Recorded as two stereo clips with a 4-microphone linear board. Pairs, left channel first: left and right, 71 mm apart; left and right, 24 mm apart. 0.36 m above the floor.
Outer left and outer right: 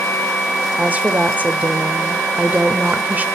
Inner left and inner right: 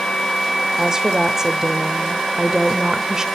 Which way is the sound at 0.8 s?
20° right (ahead or behind).